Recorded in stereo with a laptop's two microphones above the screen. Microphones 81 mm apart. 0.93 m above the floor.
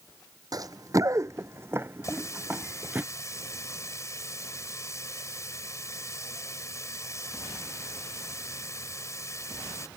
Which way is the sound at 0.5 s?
50° right (ahead or behind).